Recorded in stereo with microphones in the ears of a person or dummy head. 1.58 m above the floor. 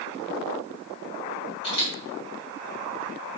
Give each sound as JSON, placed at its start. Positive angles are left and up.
{"t": 1.6, "sound": "a camera shutter", "side_deg": 35, "distance_m": 0.8}